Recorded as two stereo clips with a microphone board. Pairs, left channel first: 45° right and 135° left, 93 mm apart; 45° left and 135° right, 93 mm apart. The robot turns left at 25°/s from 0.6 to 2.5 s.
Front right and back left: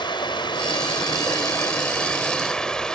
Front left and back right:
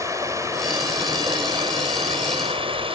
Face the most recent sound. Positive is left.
turn(degrees=-125)